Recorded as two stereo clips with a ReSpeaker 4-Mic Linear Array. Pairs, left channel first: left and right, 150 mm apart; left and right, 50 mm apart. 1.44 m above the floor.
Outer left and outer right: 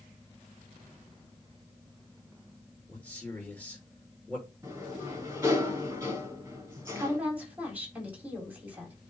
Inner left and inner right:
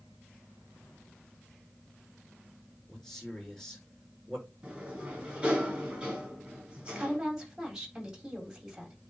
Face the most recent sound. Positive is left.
turn(degrees=-10)  # may be behind; listen again after turning